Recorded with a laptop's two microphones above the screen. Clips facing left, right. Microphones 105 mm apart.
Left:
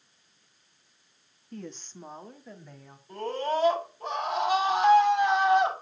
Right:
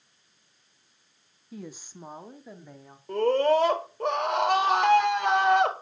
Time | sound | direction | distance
1.5 | a woman speaking | 5° right (ahead or behind) | 1.2 m
3.1 | a scream | 75° right (ahead or behind) | 4 m